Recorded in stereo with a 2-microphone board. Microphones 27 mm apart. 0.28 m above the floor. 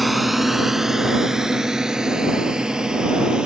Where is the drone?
5° right (ahead or behind); by 3.5 s 35° right (ahead or behind).